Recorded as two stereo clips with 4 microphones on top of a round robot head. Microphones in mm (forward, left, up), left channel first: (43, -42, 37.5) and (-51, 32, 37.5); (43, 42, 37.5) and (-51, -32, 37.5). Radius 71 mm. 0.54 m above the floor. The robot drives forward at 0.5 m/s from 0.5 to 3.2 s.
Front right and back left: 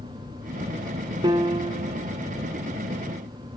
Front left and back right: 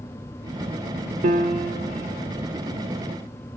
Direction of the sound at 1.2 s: 160° right.